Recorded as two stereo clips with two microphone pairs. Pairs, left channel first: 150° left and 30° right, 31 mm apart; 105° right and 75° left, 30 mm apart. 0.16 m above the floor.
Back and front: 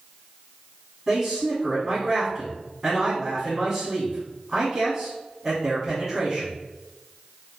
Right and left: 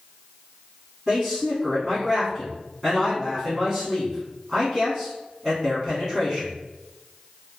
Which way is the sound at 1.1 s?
5° left.